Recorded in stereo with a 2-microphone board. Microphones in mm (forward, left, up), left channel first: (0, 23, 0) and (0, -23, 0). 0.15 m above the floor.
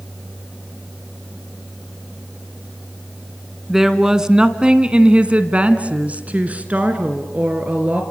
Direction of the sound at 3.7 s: 10° right (ahead or behind).